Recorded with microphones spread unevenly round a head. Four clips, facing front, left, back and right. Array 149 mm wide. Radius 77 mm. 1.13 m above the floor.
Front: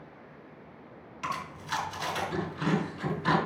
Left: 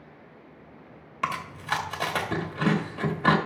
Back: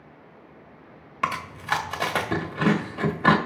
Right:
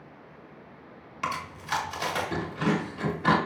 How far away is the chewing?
About 2 m.